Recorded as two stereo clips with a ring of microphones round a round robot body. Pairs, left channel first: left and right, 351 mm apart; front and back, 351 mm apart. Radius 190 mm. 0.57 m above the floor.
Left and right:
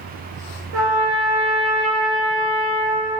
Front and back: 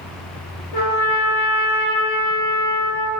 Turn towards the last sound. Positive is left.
turn(degrees=-40)